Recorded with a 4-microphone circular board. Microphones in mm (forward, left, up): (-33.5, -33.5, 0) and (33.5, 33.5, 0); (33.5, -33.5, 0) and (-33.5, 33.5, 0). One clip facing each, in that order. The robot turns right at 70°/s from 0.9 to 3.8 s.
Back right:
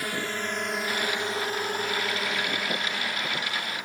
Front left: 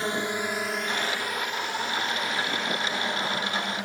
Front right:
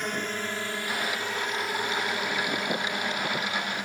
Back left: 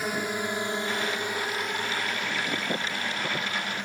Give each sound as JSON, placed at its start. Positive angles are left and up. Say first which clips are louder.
{"t": 0.0, "sound": "a drone", "louder": "front left 3 dB, back left 2 dB", "azimuth_deg": 60}